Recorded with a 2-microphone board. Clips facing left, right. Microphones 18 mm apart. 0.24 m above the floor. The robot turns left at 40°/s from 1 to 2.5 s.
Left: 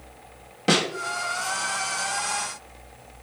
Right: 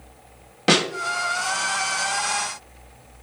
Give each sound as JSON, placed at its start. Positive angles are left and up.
{"t": 0.7, "sound": "a snare drum", "side_deg": -25, "distance_m": 0.9}